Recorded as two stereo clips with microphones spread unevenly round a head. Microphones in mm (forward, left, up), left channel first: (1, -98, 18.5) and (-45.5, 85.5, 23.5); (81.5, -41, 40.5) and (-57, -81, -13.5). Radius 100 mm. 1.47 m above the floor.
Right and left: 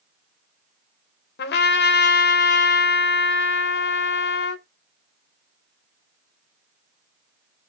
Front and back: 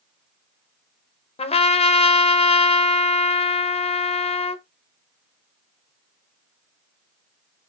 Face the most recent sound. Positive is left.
turn(degrees=-40)